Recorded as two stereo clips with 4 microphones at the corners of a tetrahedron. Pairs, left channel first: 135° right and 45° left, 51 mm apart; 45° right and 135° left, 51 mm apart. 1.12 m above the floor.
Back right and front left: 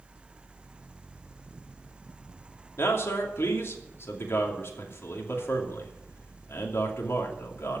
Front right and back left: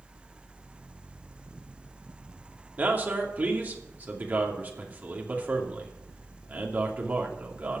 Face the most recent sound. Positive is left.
turn(degrees=-170)